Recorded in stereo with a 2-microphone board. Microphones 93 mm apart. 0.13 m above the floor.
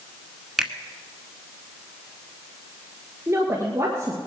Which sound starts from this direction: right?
A woman speaking, at 3.3 s.